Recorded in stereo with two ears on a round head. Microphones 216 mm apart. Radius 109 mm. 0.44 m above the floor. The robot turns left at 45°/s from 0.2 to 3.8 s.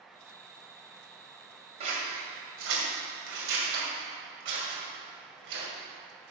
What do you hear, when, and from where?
1.8 s scissors: 30° right (ahead or behind), 2.5 m; by 5.7 s 50° right (ahead or behind), 2.5 m